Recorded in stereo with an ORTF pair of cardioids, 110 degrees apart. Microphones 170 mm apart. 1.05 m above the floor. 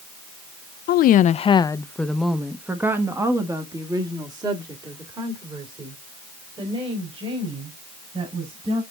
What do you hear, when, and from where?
0.9 s a woman speaking: 70° left, 0.5 m; by 8.8 s 35° right, 4.5 m